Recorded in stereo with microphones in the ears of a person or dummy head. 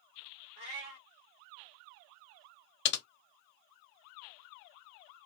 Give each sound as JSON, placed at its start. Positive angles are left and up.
{"t": 0.6, "sound": "a cat meowing", "side_deg": -45, "distance_m": 1.1}
{"t": 2.9, "sound": "typing on a keyboard", "side_deg": 70, "distance_m": 0.8}